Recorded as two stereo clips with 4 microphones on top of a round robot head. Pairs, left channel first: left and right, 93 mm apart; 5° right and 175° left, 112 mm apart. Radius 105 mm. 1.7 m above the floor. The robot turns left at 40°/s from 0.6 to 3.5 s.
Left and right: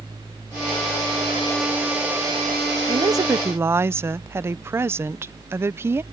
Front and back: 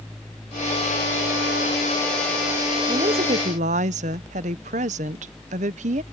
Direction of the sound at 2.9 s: 130° right.